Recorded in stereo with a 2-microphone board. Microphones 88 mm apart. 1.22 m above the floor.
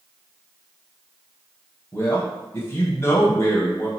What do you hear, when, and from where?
1.9 s a man speaking: 35° left (ahead or behind), 0.8 m